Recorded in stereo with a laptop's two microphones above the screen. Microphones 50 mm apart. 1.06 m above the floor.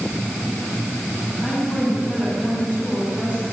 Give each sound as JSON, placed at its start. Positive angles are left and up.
{"t": 1.4, "sound": "a woman speaking", "side_deg": 30, "distance_m": 6.5}